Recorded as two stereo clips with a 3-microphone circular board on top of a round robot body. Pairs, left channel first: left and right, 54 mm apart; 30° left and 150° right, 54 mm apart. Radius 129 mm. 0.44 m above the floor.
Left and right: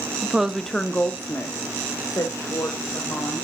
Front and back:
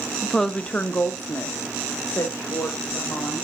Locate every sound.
0.2 s a woman speaking: 65° right, 0.9 m; by 3.4 s 65° left, 3 m